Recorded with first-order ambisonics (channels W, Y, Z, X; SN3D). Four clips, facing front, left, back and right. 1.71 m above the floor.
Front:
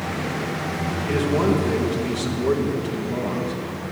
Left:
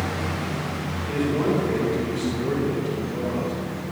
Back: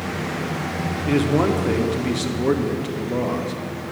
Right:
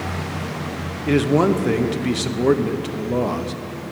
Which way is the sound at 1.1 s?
105° right.